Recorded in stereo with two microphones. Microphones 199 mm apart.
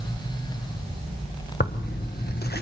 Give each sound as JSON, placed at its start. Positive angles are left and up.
{"t": 1.6, "sound": "tearing paper", "side_deg": 55, "distance_m": 1.2}